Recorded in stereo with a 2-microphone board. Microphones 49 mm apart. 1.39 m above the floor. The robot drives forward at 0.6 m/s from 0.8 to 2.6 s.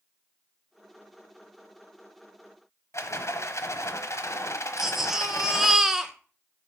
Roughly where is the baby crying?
Centre.